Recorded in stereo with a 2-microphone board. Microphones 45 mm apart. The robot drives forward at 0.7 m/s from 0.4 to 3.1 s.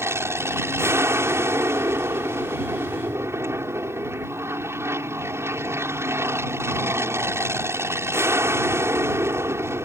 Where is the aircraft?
70° right (ahead or behind).